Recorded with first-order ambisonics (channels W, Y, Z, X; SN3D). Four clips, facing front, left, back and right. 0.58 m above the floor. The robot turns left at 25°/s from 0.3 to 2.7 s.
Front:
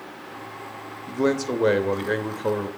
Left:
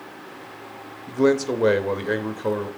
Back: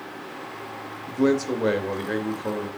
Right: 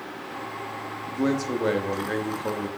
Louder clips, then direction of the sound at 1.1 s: Left 6 dB, back 1 dB; 75° left.